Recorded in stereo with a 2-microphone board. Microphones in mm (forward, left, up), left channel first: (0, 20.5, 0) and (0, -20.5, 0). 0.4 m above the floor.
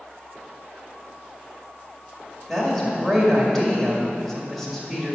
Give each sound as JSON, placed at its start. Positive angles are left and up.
{"t": 2.5, "sound": "a woman speaking", "side_deg": 5, "distance_m": 1.8}